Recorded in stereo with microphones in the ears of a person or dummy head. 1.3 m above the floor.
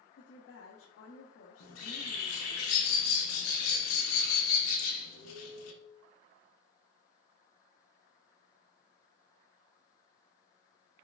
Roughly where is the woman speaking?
Left.